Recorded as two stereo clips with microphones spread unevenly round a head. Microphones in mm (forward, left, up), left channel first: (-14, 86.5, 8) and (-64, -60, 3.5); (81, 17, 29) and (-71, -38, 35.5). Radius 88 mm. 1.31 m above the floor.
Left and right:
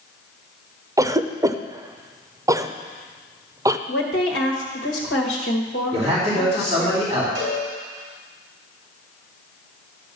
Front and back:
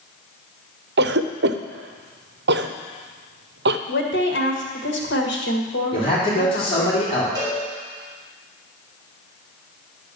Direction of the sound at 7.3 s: 95° right.